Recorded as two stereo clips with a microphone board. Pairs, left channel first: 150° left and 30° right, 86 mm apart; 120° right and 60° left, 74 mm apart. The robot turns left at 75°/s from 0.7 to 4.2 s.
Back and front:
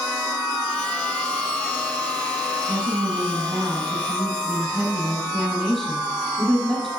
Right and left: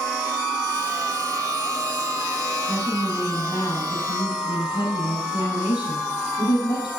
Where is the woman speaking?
10° right, 5.5 m; by 6.9 s 120° right, 5.5 m.